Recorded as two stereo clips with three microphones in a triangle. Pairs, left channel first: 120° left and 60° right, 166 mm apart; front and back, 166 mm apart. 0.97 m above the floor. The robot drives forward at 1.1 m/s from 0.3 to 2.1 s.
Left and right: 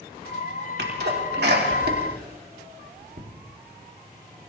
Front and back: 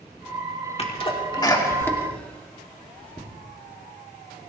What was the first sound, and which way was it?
A sneeze, 55° right.